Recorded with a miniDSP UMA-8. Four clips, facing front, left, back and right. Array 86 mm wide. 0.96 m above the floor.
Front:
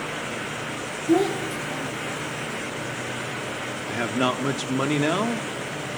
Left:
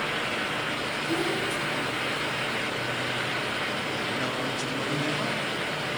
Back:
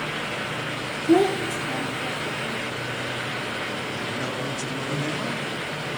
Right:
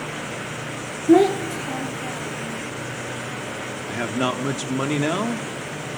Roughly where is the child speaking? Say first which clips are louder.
Right 15 dB, back 2 dB; right.